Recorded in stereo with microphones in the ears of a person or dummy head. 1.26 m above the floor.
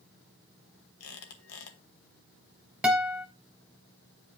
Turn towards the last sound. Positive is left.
turn(degrees=-5)  # may be behind; listen again after turning